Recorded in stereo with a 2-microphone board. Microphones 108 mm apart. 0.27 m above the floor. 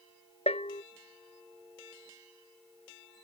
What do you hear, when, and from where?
0.5 s a bell: 70° left (ahead or behind)